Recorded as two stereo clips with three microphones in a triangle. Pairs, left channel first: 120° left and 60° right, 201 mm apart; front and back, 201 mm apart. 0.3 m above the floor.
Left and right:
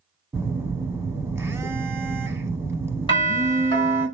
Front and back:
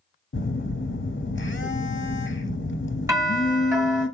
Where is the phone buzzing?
15° left, 0.6 m.